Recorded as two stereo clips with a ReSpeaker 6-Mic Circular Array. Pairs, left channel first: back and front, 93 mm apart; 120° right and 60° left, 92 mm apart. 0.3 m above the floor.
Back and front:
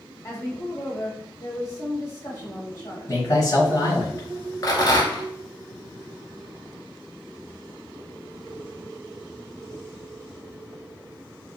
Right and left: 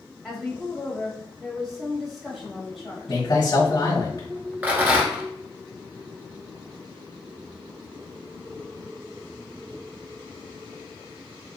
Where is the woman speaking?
150° left, 1.5 m.